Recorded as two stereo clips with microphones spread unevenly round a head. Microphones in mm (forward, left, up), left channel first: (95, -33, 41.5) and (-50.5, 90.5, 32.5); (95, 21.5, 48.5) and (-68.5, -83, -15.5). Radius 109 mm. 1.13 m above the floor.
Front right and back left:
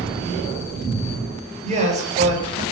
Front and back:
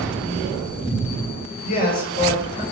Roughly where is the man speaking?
Left.